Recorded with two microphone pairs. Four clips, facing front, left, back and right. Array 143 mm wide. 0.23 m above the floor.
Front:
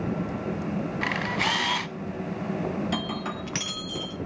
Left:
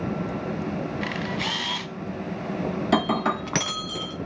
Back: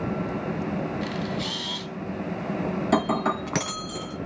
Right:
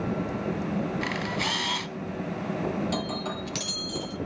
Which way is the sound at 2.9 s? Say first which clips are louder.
Left 8 dB, back 8 dB; 130° left.